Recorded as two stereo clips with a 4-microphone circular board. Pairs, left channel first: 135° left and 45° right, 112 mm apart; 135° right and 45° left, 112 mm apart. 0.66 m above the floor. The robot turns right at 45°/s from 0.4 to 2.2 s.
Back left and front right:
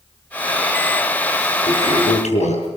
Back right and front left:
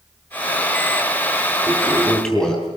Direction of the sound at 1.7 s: 115° left.